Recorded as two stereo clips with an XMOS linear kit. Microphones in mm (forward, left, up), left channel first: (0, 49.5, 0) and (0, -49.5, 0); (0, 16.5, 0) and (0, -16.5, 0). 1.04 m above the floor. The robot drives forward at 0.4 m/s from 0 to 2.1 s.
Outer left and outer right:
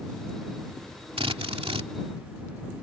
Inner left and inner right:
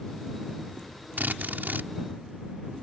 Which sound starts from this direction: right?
A drill, at 1.2 s.